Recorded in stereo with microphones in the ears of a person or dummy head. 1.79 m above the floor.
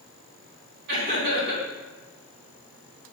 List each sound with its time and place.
0.9 s laughter: 70° right (ahead or behind), 3.5 m